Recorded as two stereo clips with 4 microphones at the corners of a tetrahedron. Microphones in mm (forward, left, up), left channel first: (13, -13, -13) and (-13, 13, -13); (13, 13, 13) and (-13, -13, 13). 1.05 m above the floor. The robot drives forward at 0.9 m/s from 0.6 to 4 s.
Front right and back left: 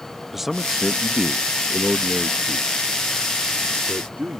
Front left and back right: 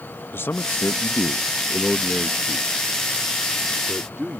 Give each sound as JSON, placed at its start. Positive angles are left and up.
{"t": 0.3, "sound": "a man speaking", "azimuth_deg": 55}